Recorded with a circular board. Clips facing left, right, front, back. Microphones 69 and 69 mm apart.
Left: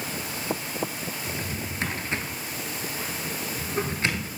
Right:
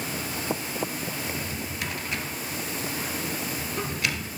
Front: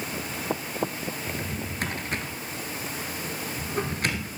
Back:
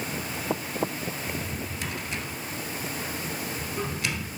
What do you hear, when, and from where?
1.3 s a drawer: 35° left, 1.6 m